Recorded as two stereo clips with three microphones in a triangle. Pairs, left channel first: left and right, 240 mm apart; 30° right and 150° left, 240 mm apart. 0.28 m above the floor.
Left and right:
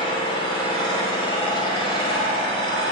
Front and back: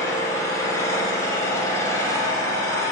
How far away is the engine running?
About 1.1 m.